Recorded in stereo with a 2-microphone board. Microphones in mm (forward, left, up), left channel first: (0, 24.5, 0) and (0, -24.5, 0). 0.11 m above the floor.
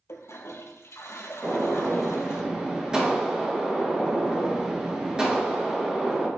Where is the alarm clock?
No alarm clock in this recording.